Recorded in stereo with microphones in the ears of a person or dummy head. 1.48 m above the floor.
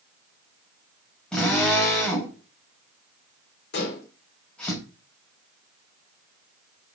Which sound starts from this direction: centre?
A drill, at 1.3 s.